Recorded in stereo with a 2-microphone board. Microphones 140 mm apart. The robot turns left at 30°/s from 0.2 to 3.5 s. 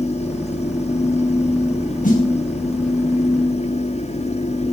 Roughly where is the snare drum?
Left.